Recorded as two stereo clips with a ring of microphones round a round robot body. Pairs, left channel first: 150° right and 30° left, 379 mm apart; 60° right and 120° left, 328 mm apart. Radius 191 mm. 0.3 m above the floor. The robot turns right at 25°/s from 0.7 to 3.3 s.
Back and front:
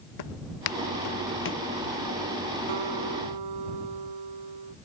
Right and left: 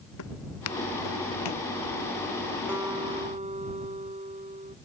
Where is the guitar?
35° left; by 4.8 s 50° left.